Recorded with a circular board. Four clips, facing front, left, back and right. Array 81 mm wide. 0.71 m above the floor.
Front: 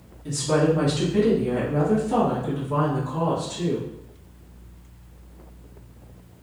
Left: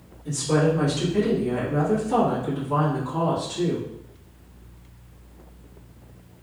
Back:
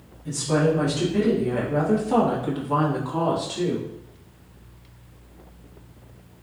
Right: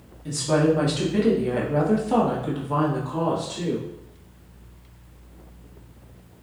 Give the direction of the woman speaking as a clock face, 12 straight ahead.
2 o'clock.